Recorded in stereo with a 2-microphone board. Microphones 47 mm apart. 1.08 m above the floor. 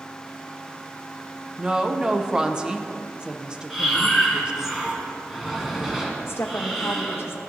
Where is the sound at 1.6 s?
15° right (ahead or behind), 0.7 m.